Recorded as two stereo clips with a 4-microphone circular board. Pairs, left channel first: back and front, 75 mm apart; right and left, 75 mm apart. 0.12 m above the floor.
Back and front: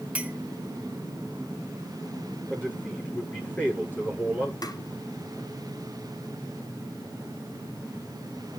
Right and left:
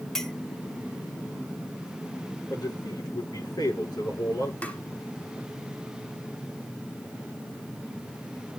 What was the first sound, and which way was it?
A clink, 20° right.